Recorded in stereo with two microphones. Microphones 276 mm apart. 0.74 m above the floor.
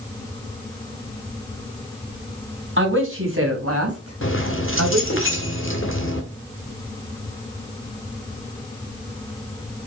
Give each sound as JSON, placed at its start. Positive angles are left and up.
{"t": 2.8, "sound": "a man speaking", "side_deg": -45, "distance_m": 4.0}
{"t": 4.2, "sound": "keys jangling", "side_deg": 45, "distance_m": 1.6}